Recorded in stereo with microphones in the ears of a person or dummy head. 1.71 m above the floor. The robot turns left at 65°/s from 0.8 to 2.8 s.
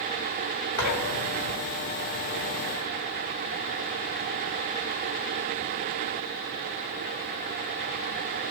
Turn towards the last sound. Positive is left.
turn(degrees=30)